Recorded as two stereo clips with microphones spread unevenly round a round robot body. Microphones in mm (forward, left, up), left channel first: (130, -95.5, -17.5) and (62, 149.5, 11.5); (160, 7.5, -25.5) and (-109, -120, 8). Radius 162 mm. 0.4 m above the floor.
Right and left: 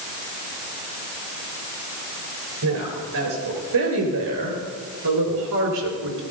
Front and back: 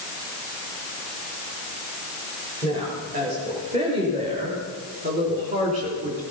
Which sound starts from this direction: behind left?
A woman speaking, at 2.6 s.